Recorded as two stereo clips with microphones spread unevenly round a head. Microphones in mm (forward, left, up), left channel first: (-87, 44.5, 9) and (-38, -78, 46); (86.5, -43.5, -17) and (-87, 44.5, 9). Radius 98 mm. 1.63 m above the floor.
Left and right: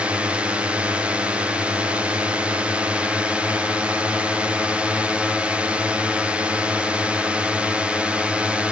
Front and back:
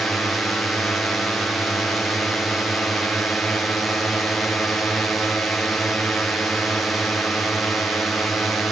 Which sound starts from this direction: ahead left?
A drone, at 0.0 s.